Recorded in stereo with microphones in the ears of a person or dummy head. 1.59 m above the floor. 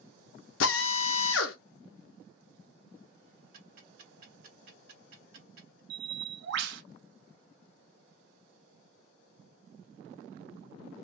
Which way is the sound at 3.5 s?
55° right (ahead or behind).